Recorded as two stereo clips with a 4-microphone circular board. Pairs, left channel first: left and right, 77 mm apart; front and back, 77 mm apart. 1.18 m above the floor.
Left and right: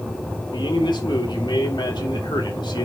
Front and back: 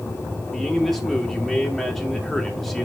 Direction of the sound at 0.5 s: 90° left.